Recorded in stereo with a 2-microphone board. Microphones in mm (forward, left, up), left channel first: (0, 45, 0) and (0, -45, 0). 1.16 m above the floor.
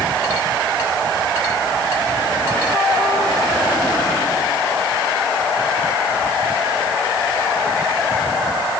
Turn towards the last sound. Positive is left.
No sound to turn to.